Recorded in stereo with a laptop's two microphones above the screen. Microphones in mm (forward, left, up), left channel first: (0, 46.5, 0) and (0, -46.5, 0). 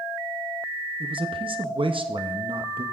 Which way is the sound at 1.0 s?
70° right (ahead or behind).